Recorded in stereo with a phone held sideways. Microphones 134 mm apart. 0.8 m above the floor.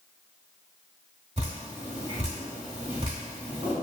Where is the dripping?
55° right (ahead or behind), 1.3 m.